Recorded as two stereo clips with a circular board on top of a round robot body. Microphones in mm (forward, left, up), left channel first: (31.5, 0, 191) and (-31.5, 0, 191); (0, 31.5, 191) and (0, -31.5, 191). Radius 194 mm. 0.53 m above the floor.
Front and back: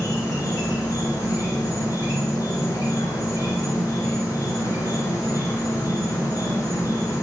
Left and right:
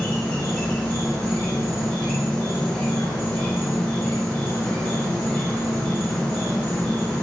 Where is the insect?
25° left, 2.5 m.